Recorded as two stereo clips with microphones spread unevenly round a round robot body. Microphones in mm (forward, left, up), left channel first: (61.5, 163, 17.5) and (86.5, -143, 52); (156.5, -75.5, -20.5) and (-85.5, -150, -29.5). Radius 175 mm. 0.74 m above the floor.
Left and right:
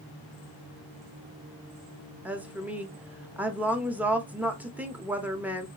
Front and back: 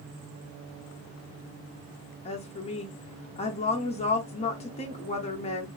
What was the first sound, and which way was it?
A woman speaking, 10° left.